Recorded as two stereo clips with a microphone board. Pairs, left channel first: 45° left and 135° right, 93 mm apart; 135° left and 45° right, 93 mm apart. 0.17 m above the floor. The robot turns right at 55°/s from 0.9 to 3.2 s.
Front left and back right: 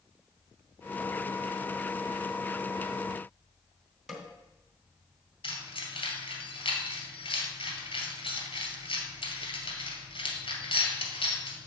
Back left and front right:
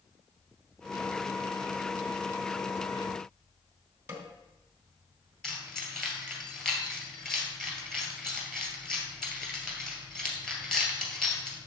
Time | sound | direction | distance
4.1 | a snare drum | 55° right | 1.4 m
5.4 | keys jangling | 50° left | 1.9 m